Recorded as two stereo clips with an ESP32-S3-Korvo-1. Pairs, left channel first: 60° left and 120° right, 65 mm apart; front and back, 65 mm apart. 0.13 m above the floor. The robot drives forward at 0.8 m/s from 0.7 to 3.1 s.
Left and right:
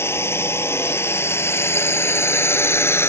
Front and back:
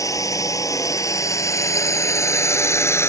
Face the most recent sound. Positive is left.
turn(degrees=25)